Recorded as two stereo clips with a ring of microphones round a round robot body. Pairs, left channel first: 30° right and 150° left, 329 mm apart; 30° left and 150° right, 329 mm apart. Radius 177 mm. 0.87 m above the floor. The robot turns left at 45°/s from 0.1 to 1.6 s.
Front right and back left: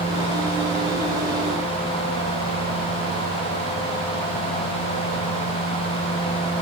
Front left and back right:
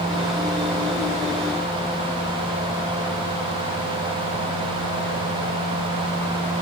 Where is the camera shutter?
I don't hear a camera shutter.